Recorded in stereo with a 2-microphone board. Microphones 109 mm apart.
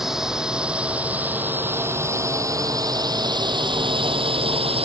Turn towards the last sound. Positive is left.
turn(degrees=-65)  # may be behind; listen again after turning